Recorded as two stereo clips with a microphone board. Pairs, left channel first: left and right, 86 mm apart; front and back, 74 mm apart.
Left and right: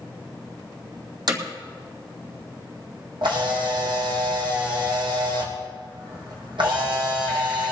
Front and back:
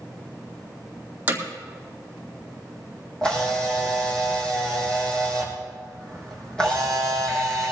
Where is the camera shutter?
80° right, 4.5 m.